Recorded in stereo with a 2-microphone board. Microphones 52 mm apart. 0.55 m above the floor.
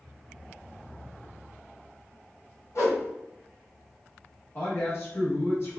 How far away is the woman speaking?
About 0.8 m.